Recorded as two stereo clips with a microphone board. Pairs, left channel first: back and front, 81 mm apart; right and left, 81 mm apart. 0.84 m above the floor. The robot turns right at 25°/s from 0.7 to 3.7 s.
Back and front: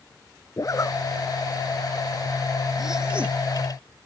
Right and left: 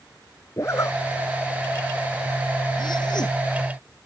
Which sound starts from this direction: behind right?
A zipper, at 0.6 s.